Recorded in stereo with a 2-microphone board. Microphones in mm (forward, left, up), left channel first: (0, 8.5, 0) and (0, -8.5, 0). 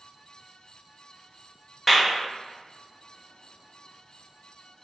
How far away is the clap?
About 0.7 m.